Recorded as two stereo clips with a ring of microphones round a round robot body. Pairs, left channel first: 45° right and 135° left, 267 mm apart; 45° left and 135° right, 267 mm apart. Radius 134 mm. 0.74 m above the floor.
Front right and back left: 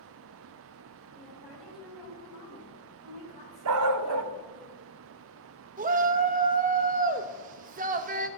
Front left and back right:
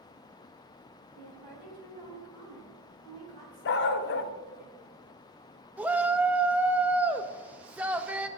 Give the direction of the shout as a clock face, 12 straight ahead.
7 o'clock.